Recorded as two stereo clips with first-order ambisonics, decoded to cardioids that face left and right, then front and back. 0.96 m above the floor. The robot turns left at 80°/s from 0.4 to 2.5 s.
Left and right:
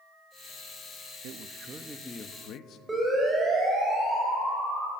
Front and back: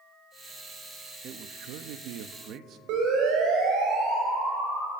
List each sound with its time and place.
1.2 s a man speaking: 125° right, 1.1 m; by 2.8 s 135° left, 1.1 m
2.9 s a siren: 170° right, 6 m; by 4.9 s 160° right, 8 m